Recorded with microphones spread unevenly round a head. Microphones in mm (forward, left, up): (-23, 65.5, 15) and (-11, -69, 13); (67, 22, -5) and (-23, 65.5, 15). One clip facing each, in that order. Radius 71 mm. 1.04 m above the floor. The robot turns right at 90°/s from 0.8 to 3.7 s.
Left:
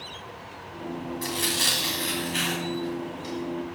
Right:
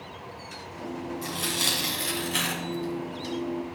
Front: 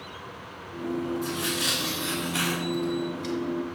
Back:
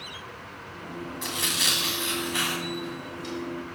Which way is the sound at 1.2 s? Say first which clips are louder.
Left 2 dB, front 3 dB; 150° left.